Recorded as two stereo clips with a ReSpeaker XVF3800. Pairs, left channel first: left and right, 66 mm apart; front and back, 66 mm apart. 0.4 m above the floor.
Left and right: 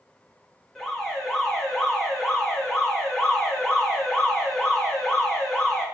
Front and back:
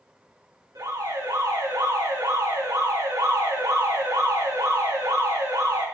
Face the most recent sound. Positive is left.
turn(degrees=175)